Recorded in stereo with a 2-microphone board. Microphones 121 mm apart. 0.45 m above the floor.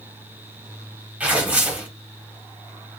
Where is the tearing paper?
15° right (ahead or behind), 0.7 m.